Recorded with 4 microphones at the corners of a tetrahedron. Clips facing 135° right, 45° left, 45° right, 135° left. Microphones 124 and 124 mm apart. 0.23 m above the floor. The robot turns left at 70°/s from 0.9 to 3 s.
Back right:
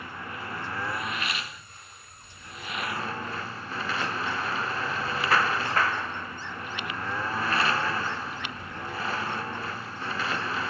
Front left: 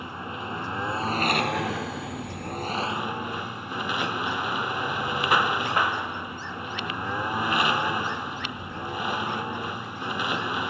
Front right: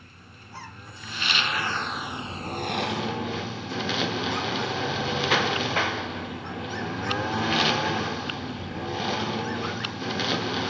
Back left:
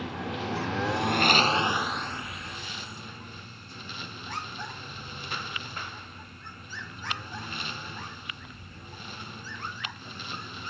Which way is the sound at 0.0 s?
115° left.